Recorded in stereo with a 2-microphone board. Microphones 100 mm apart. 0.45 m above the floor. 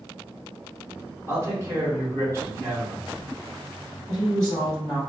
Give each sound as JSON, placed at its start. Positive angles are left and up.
{"t": 1.3, "sound": "a man speaking", "side_deg": -25, "distance_m": 1.1}
{"t": 4.1, "sound": "a woman speaking", "side_deg": -35, "distance_m": 1.7}